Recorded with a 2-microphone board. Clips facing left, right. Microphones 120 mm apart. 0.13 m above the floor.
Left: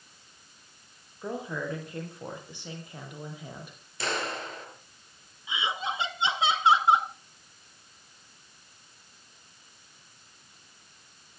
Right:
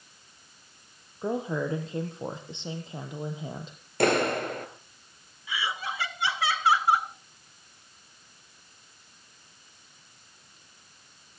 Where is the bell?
I don't hear a bell.